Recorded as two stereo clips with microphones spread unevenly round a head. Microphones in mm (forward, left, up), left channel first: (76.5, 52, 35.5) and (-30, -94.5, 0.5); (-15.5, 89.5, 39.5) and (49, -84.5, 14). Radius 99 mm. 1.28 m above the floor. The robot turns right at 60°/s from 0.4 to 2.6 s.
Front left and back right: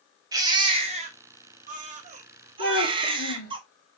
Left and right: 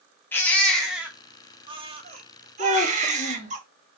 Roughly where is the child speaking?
Ahead left.